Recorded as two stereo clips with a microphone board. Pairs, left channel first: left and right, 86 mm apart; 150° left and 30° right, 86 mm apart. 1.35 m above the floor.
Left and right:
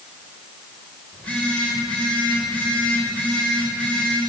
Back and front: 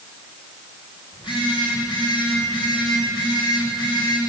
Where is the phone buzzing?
165° left, 7 m.